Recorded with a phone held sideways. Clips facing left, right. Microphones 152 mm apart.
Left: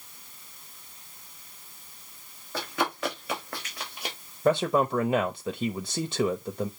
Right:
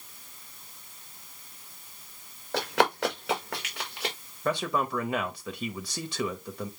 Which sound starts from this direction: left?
A man speaking, at 4.5 s.